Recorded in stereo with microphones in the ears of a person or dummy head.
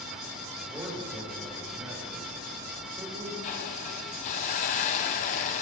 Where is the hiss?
30° left (ahead or behind), 0.8 m.